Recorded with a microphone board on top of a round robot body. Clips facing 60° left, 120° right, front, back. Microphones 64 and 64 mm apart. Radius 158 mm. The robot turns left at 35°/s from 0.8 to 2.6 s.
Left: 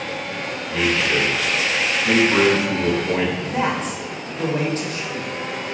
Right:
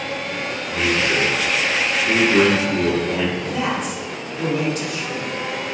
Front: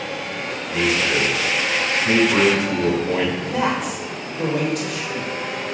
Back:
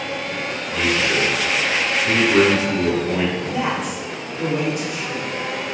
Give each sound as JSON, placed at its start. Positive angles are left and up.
{"t": 0.7, "sound": "a man speaking", "azimuth_deg": 70, "distance_m": 5.5}
{"t": 3.4, "sound": "a man speaking", "azimuth_deg": 0, "distance_m": 3.5}